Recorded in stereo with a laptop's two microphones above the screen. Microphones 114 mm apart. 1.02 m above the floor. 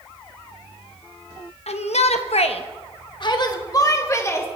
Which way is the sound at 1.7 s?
70° left (ahead or behind).